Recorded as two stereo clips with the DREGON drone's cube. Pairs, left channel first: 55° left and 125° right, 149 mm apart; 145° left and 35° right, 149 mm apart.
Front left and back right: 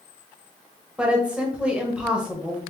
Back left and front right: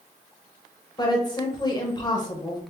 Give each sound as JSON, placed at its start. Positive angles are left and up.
{"t": 1.0, "sound": "a woman speaking", "azimuth_deg": 160, "distance_m": 0.9}